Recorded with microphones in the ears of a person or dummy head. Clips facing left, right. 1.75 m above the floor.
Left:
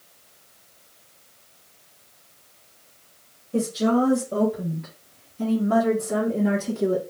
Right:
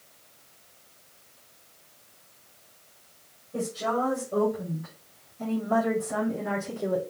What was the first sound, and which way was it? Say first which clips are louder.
A woman speaking: left 8 dB; 65° left (ahead or behind).